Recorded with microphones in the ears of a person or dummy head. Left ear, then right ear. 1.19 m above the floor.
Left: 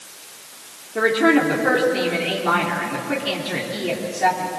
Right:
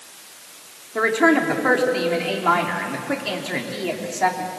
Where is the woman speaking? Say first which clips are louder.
Left 1 dB; 40° right (ahead or behind), 3.5 m.